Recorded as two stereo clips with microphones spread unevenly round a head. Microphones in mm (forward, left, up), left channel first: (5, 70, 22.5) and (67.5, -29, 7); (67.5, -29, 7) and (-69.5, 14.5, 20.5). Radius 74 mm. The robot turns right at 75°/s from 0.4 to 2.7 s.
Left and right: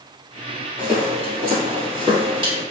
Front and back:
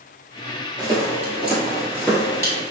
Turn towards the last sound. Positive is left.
turn(degrees=-70)